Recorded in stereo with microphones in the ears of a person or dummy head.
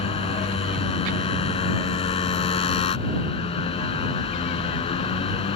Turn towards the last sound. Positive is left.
turn(degrees=35)  # may be behind; listen again after turning